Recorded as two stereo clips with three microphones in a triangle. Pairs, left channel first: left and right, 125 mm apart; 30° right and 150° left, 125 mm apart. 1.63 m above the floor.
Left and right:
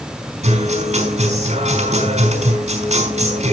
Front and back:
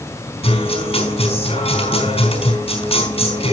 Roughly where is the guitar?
Right.